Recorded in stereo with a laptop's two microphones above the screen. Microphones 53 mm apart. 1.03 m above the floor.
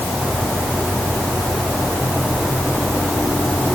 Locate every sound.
Only background noise.